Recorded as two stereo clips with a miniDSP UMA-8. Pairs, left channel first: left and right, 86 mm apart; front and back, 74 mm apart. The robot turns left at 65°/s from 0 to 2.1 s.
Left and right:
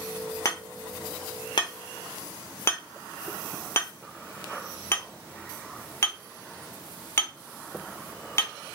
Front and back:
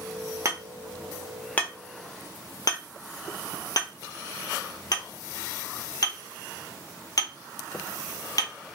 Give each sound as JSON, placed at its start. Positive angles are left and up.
{"t": 0.5, "sound": "hammering", "azimuth_deg": 140, "distance_m": 0.7}